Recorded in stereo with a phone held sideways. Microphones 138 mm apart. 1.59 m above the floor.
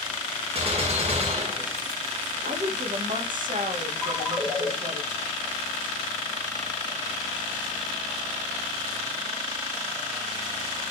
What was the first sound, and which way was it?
A gunshot, 45° right (ahead or behind).